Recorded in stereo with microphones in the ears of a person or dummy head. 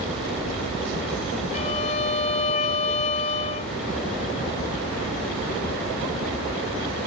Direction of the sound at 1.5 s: 35° left (ahead or behind).